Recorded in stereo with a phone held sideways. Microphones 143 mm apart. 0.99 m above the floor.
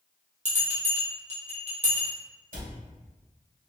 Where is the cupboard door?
75° right (ahead or behind), 1.6 m.